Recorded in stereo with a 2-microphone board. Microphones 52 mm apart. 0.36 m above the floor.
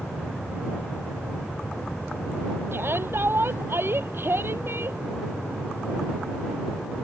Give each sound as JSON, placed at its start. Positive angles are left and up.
{"t": 2.7, "sound": "a shout", "side_deg": -50}